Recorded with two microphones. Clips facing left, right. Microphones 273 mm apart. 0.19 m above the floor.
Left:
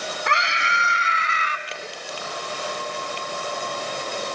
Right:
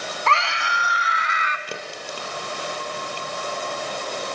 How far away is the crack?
About 4.5 m.